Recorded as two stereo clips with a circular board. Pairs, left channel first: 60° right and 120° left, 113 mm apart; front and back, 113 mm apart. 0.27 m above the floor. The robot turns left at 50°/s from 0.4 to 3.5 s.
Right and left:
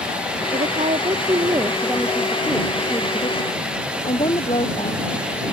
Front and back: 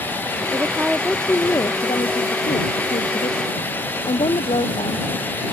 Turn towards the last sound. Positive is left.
turn(degrees=-35)